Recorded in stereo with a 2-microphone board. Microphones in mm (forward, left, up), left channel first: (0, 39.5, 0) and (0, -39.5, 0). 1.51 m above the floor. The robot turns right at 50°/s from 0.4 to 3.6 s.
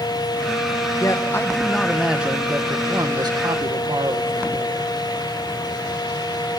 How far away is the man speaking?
About 1.8 m.